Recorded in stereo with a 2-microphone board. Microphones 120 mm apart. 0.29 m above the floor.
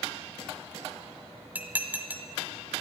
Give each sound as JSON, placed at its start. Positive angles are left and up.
{"t": 1.6, "sound": "dishes clattering", "side_deg": -15, "distance_m": 1.0}